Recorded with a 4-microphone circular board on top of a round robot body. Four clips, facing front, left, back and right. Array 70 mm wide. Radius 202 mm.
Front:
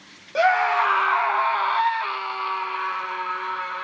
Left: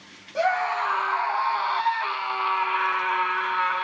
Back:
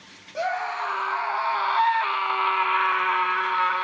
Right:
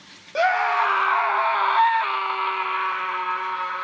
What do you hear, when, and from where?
0.3 s a scream: 40° right, 2 m; by 3.8 s 170° left, 2 m